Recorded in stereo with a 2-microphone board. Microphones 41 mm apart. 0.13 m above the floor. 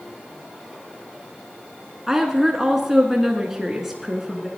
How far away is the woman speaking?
About 1.1 m.